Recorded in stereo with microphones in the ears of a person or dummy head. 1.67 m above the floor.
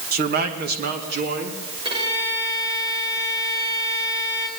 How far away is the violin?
About 5 m.